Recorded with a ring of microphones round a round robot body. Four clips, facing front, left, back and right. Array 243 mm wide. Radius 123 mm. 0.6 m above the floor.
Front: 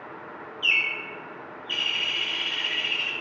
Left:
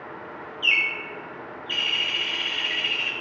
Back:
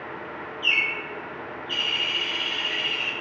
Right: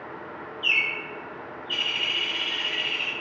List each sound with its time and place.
0.6 s a bird: 80° left, 0.7 m